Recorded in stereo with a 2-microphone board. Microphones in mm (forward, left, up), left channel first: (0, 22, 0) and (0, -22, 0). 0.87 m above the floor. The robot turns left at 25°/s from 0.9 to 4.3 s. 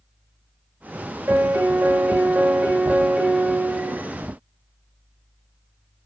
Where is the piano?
100° right, 0.8 m; by 4.0 s 165° right, 0.8 m.